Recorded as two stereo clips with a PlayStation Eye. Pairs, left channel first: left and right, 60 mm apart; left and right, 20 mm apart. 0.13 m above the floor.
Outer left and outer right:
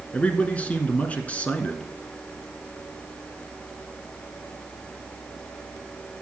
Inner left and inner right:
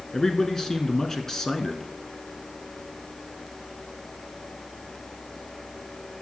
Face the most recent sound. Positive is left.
turn(degrees=25)  # may be behind; listen again after turning